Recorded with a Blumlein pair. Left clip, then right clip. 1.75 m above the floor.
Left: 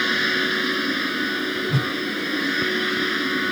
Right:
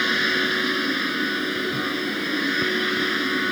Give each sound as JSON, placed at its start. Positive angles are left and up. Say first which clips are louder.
{"t": 0.0, "sound": "a machine running", "louder": "even", "azimuth_deg": 0}
{"t": 1.7, "sound": "a whoosh", "louder": "left 1 dB", "azimuth_deg": 55}